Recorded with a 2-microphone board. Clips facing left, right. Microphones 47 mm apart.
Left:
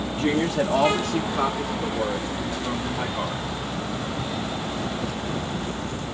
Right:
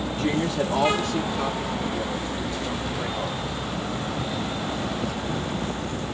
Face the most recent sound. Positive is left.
turn(degrees=55)  # may be behind; listen again after turning